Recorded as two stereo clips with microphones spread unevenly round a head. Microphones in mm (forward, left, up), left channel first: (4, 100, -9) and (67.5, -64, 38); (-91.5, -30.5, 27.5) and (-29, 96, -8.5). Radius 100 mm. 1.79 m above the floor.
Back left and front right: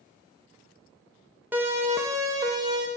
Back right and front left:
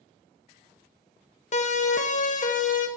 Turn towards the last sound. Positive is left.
turn(degrees=-140)